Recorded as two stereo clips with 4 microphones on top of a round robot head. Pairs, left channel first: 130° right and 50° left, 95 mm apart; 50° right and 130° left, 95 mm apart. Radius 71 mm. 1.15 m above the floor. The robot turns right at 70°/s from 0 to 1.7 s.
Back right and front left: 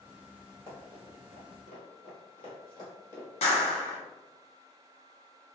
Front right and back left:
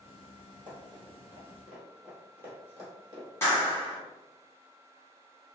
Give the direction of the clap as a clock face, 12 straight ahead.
4 o'clock.